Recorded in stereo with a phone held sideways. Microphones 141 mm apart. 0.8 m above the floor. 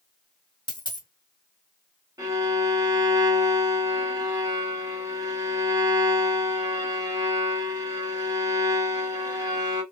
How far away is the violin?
About 0.9 m.